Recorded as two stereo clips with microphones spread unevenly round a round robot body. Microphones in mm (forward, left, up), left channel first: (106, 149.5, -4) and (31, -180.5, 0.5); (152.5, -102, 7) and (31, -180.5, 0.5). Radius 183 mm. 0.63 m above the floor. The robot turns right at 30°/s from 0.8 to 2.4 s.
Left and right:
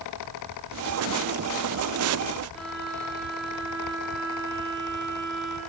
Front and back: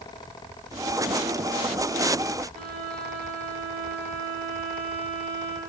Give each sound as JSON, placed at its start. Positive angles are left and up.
{"t": 2.5, "sound": "a violin", "azimuth_deg": 170, "distance_m": 8.0}